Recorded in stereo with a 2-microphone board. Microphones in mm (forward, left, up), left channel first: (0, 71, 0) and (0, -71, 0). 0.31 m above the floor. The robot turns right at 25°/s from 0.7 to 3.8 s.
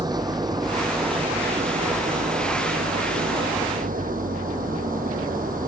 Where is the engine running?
150° right; by 5.7 s 75° right.